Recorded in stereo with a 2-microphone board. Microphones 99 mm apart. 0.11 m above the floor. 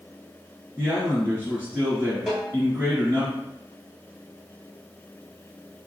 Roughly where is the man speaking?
Right.